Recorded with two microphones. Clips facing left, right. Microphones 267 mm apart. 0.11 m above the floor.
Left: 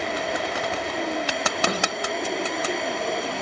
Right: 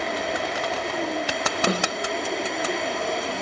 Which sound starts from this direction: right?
A snare drum, at 1.7 s.